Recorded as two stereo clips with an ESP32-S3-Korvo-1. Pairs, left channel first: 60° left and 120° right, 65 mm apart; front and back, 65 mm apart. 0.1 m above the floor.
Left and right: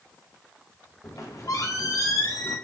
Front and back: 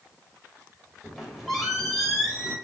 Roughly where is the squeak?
Left.